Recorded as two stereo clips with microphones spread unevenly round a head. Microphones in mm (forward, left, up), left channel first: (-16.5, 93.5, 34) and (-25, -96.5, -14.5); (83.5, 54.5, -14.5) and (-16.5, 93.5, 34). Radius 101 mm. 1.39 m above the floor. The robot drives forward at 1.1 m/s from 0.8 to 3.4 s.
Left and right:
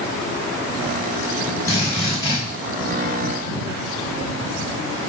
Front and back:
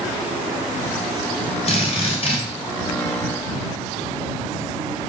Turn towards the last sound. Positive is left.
turn(degrees=25)